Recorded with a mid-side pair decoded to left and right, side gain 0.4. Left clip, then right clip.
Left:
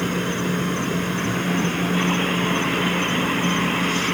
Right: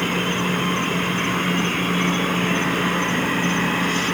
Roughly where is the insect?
Ahead.